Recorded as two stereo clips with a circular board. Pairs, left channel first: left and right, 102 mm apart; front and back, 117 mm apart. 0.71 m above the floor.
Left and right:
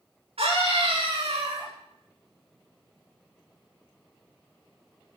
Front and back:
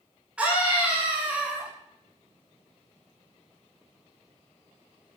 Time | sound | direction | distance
0.4 | a scream | 100° right | 7.5 m